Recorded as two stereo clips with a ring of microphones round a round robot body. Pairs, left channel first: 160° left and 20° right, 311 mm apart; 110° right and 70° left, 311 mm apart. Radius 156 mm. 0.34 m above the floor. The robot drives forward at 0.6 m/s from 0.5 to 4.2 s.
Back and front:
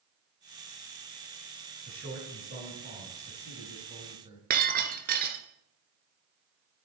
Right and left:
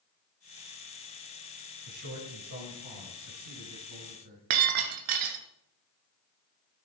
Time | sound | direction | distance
1.9 | a man speaking | 35° left | 4.5 m
4.5 | breaking glass | 40° left | 1.1 m